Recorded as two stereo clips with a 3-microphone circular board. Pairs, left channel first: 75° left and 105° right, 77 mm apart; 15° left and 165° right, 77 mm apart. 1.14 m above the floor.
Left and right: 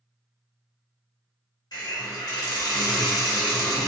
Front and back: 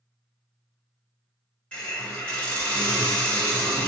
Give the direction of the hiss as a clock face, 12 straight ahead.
9 o'clock.